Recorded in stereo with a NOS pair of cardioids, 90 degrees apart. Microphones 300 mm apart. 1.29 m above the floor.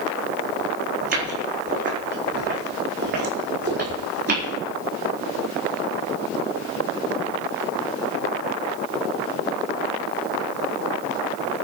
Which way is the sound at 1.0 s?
35° right.